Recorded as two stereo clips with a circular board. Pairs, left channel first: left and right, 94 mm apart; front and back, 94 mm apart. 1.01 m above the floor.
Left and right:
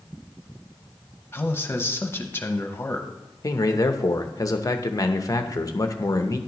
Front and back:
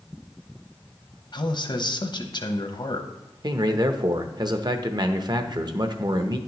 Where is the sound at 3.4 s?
140° left, 0.7 m.